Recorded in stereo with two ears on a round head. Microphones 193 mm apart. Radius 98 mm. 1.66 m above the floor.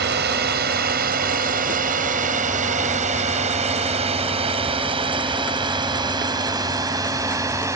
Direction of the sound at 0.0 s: 45° right (ahead or behind).